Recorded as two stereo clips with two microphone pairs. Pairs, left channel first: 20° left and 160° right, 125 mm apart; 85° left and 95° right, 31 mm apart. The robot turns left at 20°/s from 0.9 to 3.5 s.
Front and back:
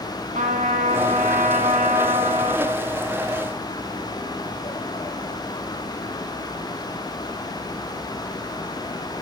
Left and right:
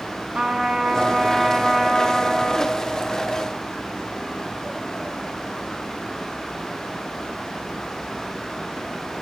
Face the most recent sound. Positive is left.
turn(degrees=150)